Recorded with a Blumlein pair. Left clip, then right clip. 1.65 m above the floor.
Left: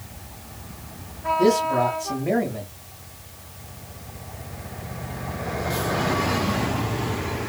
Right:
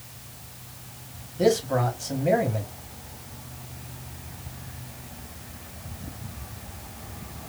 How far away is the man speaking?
About 2 m.